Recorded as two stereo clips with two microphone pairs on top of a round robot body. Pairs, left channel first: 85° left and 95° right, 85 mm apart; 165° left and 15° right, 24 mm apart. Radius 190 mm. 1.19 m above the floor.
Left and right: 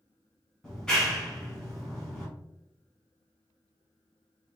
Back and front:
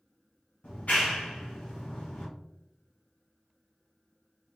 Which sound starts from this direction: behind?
A clap, at 0.6 s.